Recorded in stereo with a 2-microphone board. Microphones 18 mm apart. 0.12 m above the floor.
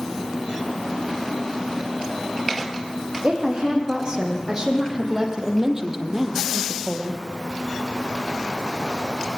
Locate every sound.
3.2 s a woman speaking: 40° right (ahead or behind), 6 m; by 7.2 s centre (ahead or behind), 2.5 m